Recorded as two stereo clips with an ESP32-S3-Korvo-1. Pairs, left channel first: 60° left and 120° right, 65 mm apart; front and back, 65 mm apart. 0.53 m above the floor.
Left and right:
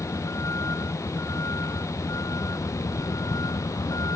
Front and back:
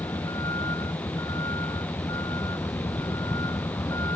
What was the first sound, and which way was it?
A vehicle, 15° left.